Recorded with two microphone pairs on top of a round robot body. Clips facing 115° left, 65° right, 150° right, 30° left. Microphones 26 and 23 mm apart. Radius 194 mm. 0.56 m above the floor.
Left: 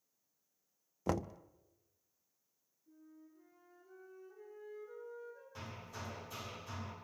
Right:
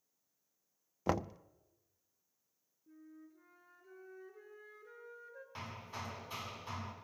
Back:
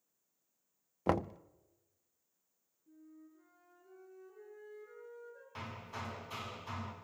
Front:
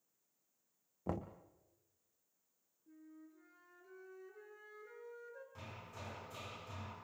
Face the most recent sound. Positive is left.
turn(degrees=-115)